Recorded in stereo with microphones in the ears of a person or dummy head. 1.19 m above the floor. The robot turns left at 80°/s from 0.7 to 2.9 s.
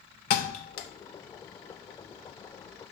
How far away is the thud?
About 0.7 m.